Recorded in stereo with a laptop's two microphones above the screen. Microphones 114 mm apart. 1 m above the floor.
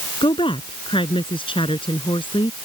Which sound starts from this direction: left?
A woman speaking, at 0.2 s.